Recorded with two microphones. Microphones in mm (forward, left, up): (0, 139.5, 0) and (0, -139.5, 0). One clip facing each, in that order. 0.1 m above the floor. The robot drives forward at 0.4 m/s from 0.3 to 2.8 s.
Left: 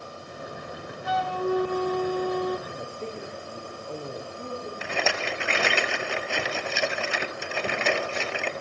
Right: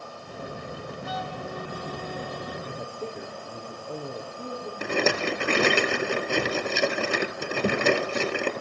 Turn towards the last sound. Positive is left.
turn(degrees=-45)  # may be behind; listen again after turning